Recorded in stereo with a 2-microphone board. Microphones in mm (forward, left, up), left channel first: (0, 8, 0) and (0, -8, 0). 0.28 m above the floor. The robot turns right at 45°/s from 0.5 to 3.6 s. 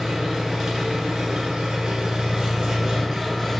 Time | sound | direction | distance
0.0 | an engine running | 140° right | 0.9 m